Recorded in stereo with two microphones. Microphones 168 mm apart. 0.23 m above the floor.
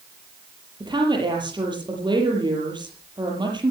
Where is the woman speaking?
25° right (ahead or behind), 7 m.